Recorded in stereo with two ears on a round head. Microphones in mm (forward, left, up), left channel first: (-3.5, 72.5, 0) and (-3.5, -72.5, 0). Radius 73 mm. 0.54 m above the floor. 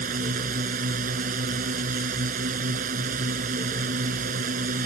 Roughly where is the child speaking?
I don't hear a child speaking.